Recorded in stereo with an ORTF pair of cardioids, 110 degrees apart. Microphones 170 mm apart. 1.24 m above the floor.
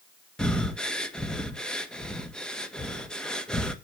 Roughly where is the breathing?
Ahead.